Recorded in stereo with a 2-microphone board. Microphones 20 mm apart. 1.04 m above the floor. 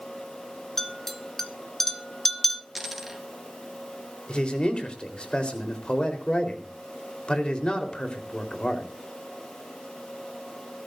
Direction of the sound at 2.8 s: 10° right (ahead or behind).